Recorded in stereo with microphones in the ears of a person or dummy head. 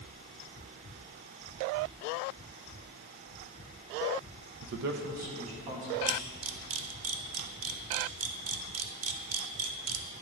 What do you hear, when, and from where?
4.6 s a man speaking: 70° right (ahead or behind), 0.6 m; by 6.0 s 40° right (ahead or behind), 1.7 m
6.1 s a camera shutter: 70° right (ahead or behind), 0.7 m